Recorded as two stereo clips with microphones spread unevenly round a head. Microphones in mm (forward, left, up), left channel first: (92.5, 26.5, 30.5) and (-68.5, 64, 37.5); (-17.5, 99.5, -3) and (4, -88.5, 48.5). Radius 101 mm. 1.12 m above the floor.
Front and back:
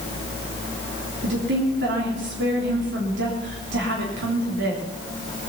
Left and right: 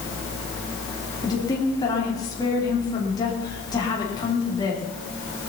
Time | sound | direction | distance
1.2 | a woman speaking | 165° left | 3 m